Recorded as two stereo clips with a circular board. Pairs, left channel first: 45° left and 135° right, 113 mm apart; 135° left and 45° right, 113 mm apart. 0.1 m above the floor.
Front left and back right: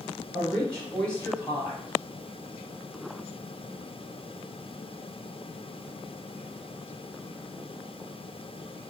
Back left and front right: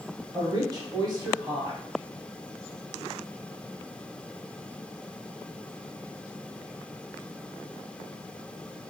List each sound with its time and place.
0.3 s a woman speaking: 25° right, 1.4 m